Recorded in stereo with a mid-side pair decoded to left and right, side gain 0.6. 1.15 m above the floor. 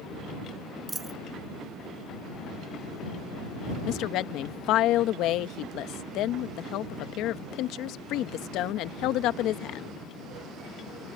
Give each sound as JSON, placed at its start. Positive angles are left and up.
{"t": 0.9, "sound": "a dropped coin", "azimuth_deg": -20}
{"t": 3.9, "sound": "a woman speaking", "azimuth_deg": 65}